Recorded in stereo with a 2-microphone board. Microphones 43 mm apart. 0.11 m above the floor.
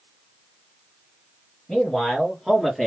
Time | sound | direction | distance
1.7 | a man speaking | 5° left (ahead or behind) | 3 m